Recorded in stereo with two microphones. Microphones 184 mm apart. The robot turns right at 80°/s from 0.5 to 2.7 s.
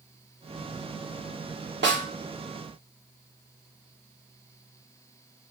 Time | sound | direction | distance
1.8 | a snare drum | 75° right (ahead or behind) | 0.8 m